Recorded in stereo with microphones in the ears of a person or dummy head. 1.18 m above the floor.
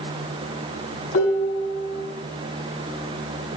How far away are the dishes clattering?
About 7 m.